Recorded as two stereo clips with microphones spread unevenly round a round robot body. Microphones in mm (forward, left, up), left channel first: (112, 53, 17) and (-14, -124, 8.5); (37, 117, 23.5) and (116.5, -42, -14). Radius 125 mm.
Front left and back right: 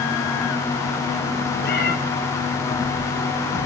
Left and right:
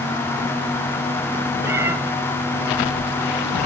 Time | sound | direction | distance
1.6 | a cat meowing | 10° left | 1.7 m